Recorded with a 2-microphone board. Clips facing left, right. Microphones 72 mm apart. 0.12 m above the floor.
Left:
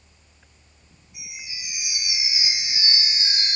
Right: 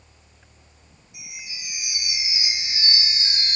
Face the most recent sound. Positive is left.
turn(degrees=30)  # may be behind; listen again after turning